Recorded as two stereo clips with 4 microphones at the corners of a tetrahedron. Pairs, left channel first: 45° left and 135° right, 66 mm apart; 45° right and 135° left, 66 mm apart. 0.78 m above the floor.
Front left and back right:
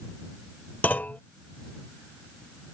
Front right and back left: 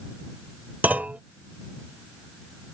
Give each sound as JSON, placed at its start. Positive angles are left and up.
{"t": 0.8, "sound": "a clunk", "azimuth_deg": 85}